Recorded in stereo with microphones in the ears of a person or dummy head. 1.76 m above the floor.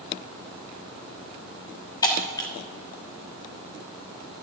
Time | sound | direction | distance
2.0 | breaking glass | 15° left (ahead or behind) | 1.7 m